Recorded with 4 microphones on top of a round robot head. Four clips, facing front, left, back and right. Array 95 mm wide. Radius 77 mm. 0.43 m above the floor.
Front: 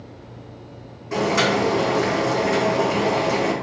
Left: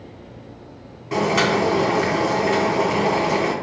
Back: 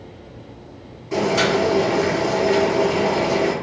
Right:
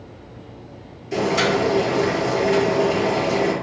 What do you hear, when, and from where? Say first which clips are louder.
1.1 s boiling: left 1 dB, back 1 dB; 85° left, 1.7 m